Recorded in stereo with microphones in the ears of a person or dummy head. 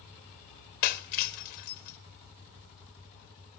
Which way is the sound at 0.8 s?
35° left (ahead or behind).